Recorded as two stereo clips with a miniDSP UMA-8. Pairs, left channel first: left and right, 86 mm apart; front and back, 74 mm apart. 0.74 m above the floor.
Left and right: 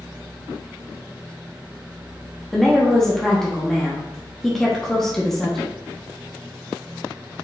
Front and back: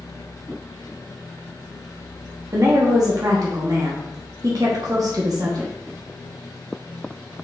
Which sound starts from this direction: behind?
A woman speaking, at 2.5 s.